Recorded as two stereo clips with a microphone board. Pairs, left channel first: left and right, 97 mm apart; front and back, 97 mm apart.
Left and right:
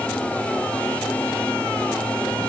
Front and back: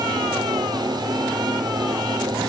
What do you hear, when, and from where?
Only background noise.